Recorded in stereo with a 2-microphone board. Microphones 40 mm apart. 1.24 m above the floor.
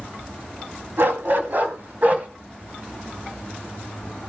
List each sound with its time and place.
1.0 s a dog barking: 60° right (ahead or behind), 2 m; by 2.3 s 35° right (ahead or behind), 2 m